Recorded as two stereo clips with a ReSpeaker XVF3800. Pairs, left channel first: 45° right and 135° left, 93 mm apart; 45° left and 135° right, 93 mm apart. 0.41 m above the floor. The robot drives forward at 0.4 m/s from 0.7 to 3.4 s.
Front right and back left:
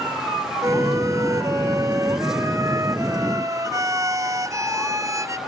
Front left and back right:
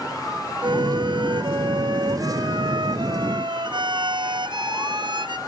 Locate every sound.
0.6 s a violin: 170° right